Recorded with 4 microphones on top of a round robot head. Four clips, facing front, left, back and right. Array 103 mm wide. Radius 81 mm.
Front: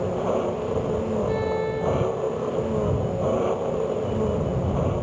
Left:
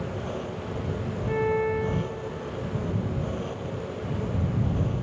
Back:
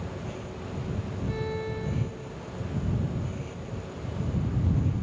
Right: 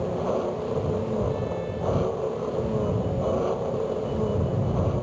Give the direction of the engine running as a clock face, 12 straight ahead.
1 o'clock.